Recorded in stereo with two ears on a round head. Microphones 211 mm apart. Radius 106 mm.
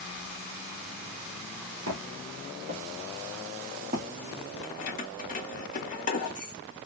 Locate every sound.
1.9 s footsteps: 50° right (ahead or behind), 3 m; by 4.1 s 35° right (ahead or behind), 2 m
4.6 s keys jangling: 35° left (ahead or behind), 1.6 m